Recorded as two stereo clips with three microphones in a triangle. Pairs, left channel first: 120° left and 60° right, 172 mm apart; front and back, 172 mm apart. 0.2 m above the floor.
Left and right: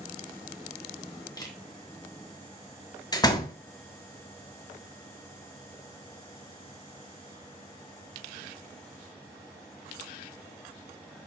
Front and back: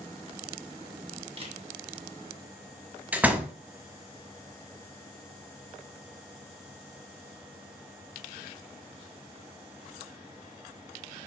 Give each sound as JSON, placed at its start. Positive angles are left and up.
{"t": 1.4, "sound": "a camera shutter", "azimuth_deg": 170, "distance_m": 1.9}
{"t": 3.1, "sound": "a door slam", "azimuth_deg": 115, "distance_m": 1.1}